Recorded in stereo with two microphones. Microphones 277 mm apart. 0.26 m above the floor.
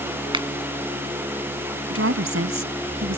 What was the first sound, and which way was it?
A finger snap, 20° right (ahead or behind).